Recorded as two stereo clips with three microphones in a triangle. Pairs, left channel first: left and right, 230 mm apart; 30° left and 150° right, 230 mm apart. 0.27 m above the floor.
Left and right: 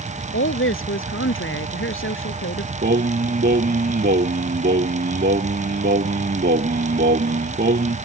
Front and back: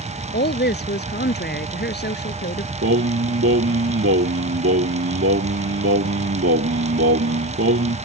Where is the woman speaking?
70° left.